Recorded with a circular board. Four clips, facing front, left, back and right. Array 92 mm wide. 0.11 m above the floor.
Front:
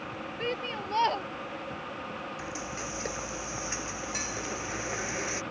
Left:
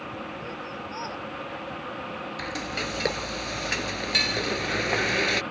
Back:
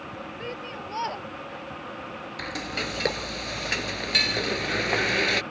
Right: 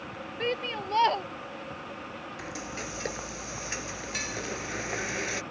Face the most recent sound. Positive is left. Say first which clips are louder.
# left 5 dB, back 4 dB
turn(degrees=145)